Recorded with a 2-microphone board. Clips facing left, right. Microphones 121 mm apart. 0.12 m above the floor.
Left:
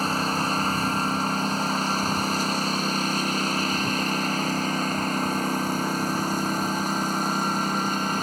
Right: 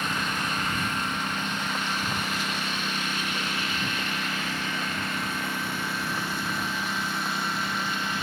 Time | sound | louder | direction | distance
0.0 | a lawn mower | left 5 dB | 35° left (ahead or behind) | ?